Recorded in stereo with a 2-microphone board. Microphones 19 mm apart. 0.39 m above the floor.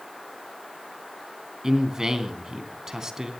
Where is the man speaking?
30° right (ahead or behind), 3 m.